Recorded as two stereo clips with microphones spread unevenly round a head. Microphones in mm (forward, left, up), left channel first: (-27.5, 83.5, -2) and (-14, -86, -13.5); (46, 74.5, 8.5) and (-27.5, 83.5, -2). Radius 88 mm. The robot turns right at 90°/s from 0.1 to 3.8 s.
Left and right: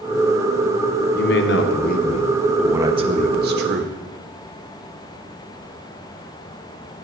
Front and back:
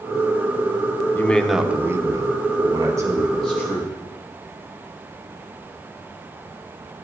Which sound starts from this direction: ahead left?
A man speaking, at 1.1 s.